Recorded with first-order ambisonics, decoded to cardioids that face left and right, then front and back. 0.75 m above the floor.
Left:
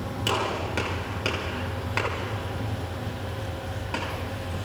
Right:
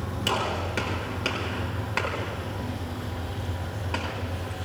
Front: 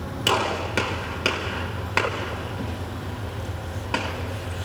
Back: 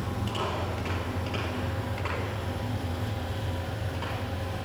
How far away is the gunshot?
About 4.5 m.